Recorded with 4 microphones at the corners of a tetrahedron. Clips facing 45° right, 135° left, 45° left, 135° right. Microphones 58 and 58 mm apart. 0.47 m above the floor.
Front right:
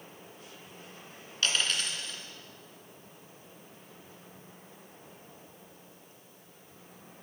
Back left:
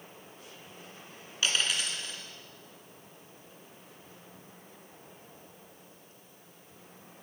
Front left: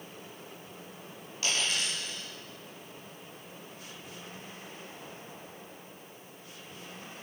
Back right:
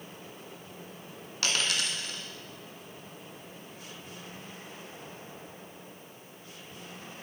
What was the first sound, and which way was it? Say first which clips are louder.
A dropped coin: even, back right 1 dB; 145° right.